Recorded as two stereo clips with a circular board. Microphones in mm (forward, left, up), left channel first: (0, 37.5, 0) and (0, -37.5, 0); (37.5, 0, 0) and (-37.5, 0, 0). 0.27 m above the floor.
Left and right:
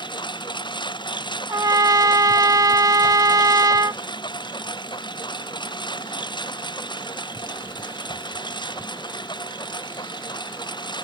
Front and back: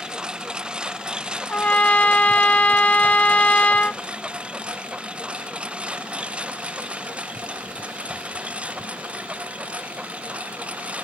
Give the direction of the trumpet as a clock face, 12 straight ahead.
2 o'clock.